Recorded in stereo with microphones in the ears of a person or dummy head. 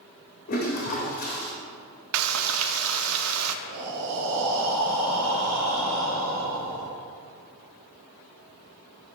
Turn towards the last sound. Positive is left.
turn(degrees=-75)  # may be behind; listen again after turning